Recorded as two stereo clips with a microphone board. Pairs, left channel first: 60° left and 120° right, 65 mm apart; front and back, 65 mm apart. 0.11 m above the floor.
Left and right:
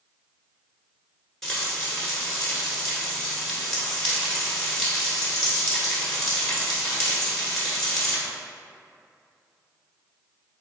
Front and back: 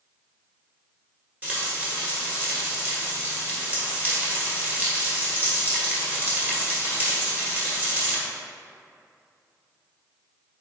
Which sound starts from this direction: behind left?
Frying, at 1.4 s.